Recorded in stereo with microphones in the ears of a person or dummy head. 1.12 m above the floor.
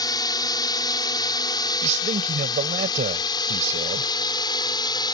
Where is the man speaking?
45° right (ahead or behind).